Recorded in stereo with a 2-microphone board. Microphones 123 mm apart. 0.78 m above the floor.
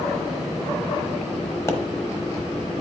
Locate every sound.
1.7 s a pop: 25° left (ahead or behind), 1.1 m